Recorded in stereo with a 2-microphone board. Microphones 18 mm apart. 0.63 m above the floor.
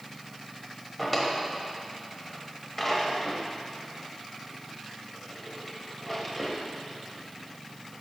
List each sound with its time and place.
1.0 s a drawer: 10° left (ahead or behind), 1.0 m